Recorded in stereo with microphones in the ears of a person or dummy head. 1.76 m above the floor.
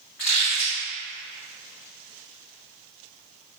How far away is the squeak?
About 0.9 m.